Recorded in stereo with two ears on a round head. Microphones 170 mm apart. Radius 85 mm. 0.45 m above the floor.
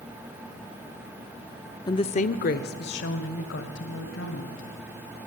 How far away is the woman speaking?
About 0.7 m.